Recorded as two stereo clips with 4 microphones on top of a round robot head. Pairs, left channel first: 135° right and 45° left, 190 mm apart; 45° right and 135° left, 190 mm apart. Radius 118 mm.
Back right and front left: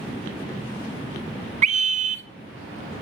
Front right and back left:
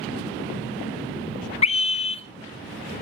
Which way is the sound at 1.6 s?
5° left.